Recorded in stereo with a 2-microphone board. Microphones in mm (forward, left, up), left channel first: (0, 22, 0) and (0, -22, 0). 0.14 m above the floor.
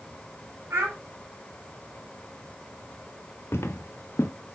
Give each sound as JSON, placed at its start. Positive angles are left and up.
{"t": 0.7, "sound": "a child speaking", "side_deg": -70, "distance_m": 4.5}
{"t": 3.5, "sound": "footsteps", "side_deg": 70, "distance_m": 1.2}